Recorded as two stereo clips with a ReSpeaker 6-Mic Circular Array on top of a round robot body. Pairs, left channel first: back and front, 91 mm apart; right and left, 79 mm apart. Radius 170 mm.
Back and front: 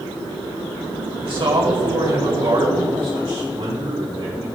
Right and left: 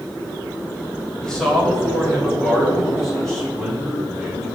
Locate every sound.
1.2 s a man speaking: 10° right, 2 m; by 4.5 s straight ahead, 4 m